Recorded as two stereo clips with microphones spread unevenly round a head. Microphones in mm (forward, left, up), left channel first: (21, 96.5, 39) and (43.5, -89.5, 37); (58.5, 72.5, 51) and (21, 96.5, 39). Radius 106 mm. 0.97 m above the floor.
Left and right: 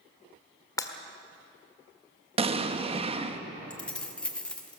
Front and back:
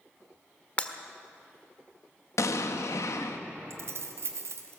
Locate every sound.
0.8 s breaking glass: 25° left, 1.5 m
2.4 s an explosion: 25° right, 1.2 m
3.7 s keys jangling: straight behind, 1.0 m